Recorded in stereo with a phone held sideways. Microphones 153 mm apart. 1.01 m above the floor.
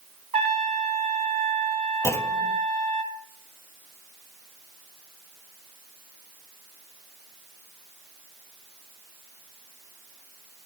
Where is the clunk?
15° left (ahead or behind), 0.6 m.